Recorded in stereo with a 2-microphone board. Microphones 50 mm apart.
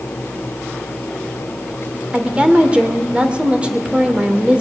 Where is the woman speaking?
25° right (ahead or behind), 1.5 m.